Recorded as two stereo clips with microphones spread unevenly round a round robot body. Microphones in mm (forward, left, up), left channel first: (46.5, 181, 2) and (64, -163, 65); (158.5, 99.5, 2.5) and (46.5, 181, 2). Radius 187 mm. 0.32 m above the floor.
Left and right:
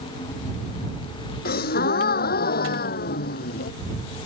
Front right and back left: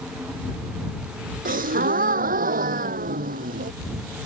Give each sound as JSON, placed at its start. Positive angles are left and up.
{"t": 1.4, "sound": "a gasp", "azimuth_deg": 160}